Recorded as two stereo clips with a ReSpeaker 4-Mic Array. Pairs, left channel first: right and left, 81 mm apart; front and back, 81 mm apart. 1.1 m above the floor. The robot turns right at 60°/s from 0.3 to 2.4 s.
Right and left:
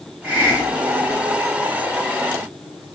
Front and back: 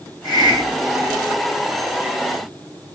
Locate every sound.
0.2 s a hiss: 25° left, 3 m; by 1.2 s 80° left, 3 m